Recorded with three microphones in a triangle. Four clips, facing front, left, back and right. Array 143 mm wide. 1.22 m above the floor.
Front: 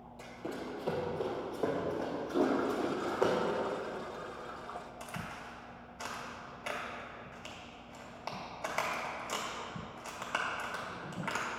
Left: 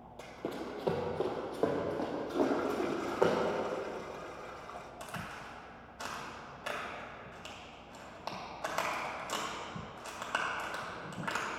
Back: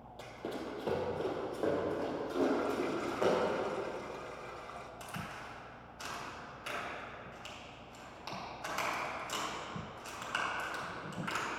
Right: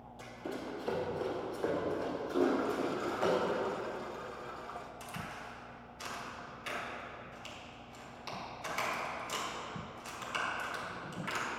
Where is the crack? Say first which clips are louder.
Left 1 dB, front 1 dB; 55° left, 2.5 m.